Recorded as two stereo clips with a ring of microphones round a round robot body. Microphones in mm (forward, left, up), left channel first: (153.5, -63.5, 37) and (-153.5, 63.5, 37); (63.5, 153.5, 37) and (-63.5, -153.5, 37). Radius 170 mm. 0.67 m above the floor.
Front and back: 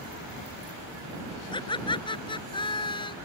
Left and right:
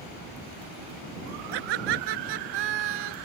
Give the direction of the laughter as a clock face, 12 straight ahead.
3 o'clock.